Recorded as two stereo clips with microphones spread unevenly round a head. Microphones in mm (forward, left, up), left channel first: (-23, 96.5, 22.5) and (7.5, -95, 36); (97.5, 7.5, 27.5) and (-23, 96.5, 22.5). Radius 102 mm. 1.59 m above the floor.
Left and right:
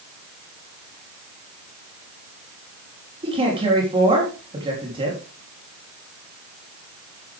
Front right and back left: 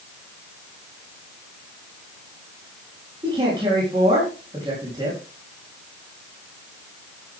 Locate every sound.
3.2 s a man speaking: 145° right, 3.5 m